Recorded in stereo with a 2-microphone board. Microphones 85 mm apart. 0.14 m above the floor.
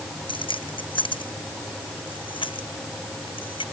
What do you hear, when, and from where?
0.3 s keys jangling: 75° left (ahead or behind); by 3.6 s 80° left